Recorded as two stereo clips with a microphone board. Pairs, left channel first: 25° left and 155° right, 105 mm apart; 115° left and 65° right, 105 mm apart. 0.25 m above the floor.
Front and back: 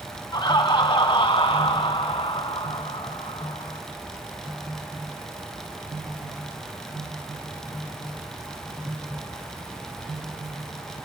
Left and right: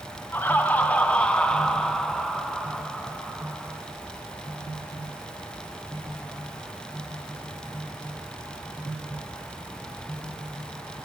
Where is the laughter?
50° left, 2.5 m; by 3.8 s 20° left, 4 m.